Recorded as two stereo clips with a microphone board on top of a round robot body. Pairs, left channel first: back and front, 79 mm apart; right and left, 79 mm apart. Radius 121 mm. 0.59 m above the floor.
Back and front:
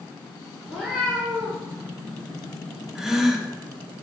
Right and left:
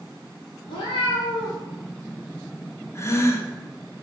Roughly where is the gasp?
Right.